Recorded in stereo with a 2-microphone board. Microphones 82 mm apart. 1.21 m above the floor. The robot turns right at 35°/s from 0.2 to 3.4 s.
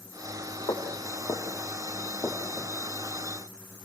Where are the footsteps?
65° left (ahead or behind), 4 m; by 2.7 s 5° left (ahead or behind), 5 m.